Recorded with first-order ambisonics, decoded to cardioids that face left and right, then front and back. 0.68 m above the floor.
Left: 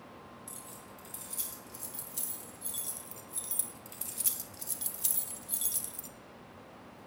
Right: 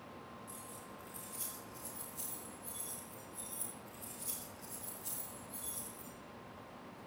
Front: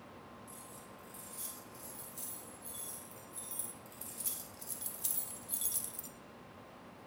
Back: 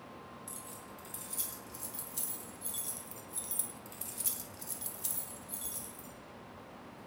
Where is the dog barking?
No dog barking in this recording.